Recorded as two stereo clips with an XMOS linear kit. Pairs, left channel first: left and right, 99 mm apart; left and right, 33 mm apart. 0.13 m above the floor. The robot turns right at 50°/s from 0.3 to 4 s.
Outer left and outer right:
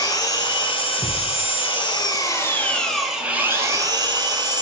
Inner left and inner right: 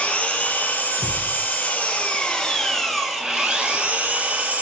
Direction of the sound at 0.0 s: 45° left.